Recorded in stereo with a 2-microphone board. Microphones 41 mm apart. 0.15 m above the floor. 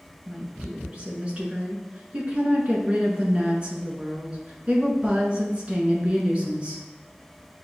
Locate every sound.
0.3 s a woman speaking: 30° right (ahead or behind), 1.4 m